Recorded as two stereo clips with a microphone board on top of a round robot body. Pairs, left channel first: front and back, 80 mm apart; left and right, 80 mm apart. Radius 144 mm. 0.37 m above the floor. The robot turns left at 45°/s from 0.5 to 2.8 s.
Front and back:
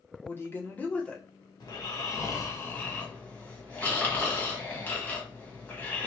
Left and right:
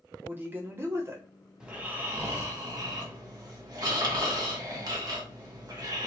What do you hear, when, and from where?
0.2 s a woman speaking: 45° right, 0.9 m; by 1.2 s 80° right, 0.9 m
1.6 s snoring: 15° right, 1.4 m; by 6.1 s 70° right, 1.4 m